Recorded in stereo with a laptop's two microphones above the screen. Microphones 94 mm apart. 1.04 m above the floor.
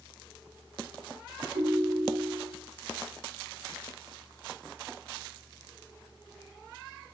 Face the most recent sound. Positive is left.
turn(degrees=-90)